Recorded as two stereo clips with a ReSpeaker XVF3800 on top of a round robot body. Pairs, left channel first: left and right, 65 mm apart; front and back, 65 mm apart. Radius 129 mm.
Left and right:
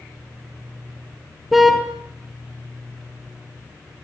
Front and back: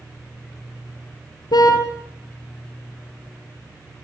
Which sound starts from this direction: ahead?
A car horn, at 1.5 s.